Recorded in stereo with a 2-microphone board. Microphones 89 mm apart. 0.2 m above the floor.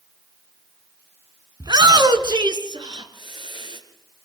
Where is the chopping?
I don't hear chopping.